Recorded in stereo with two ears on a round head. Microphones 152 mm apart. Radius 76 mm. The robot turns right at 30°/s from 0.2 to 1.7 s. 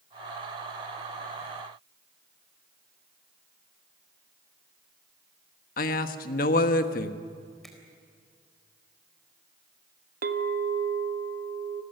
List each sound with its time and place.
5.8 s a man speaking: 60° left (ahead or behind), 1.4 m
7.6 s a finger snap: centre (ahead or behind), 4 m
10.2 s a clink: 60° right (ahead or behind), 1.2 m